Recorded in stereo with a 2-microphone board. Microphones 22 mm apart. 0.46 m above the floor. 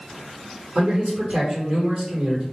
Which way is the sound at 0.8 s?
50° right (ahead or behind).